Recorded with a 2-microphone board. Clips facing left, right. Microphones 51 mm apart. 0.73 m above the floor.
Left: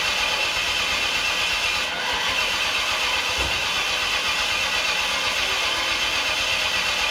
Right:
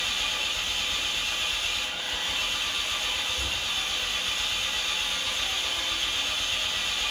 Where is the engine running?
70° left (ahead or behind), 1.2 m.